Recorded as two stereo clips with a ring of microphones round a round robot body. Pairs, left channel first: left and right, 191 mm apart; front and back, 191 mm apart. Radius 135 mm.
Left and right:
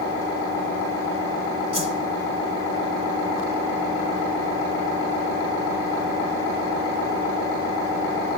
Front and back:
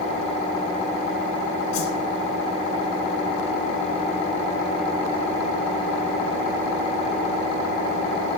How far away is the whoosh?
About 1.8 m.